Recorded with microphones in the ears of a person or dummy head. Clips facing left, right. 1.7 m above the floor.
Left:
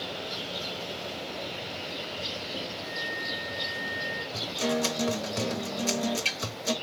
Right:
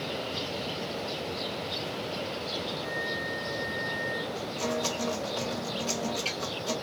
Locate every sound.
2.8 s a flute: 35° right (ahead or behind), 2.5 m
4.3 s a guitar: 25° left (ahead or behind), 1.0 m